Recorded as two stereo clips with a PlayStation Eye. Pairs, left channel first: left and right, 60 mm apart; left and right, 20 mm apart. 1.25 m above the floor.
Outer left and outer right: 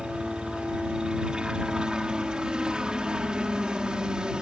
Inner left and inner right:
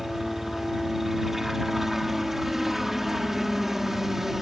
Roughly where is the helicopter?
Centre.